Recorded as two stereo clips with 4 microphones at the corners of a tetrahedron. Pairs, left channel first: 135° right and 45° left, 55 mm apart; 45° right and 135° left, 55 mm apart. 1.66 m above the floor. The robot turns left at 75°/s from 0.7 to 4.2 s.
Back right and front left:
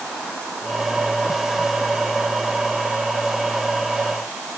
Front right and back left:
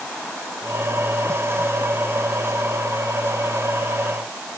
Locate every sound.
Only background noise.